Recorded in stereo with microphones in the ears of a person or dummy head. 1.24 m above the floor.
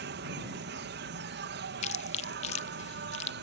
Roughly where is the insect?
Right.